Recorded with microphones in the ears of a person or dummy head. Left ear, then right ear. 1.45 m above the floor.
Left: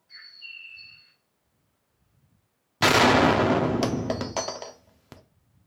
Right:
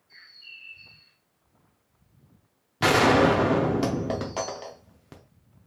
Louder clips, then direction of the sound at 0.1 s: Left 4 dB; 45° left (ahead or behind).